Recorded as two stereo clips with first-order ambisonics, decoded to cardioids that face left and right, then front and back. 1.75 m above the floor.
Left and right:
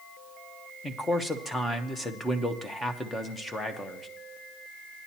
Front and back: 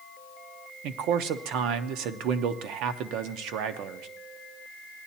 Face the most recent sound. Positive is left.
turn(degrees=165)